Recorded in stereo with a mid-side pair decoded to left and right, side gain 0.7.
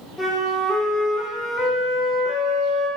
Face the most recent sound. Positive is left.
turn(degrees=5)